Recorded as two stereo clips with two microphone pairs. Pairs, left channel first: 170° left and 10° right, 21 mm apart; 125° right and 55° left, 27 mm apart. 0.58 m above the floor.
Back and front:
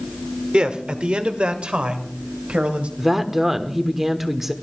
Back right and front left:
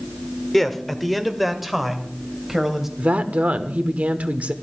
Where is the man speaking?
40° right, 1.4 m; by 2.9 s 25° right, 2.5 m.